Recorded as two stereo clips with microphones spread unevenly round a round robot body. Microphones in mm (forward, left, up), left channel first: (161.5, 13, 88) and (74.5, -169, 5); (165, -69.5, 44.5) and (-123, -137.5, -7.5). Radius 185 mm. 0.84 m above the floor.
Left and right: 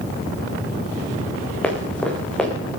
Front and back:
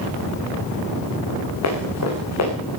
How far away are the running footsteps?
About 5 m.